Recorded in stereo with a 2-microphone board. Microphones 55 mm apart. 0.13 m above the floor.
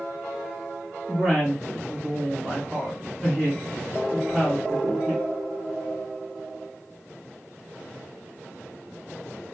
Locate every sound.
1.1 s a woman speaking: 5° right (ahead or behind), 3 m